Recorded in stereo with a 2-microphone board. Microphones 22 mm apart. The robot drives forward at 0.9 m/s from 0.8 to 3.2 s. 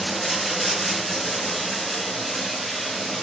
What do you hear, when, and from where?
0.0 s running water: 5° right (ahead or behind), 0.8 m; by 3.2 s centre (ahead or behind), 2.5 m